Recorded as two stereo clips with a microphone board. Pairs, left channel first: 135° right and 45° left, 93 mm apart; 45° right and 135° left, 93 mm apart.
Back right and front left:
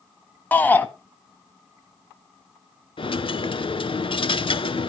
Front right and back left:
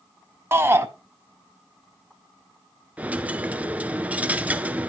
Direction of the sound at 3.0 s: 155° right.